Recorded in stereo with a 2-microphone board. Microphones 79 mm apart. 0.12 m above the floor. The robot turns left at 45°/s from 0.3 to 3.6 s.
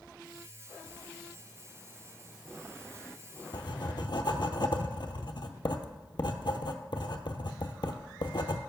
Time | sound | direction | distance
3.5 | writing | 75° left (ahead or behind) | 0.6 m